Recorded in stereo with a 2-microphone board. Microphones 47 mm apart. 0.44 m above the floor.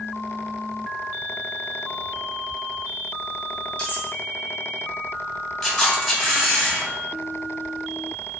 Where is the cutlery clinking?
30° left (ahead or behind), 1.2 m.